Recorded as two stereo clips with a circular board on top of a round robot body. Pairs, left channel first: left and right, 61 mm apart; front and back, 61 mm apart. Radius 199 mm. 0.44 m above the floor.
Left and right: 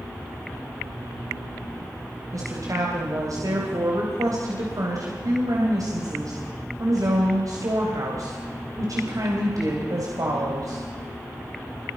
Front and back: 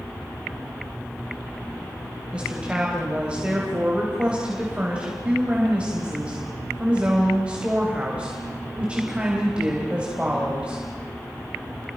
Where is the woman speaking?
105° right, 4 m.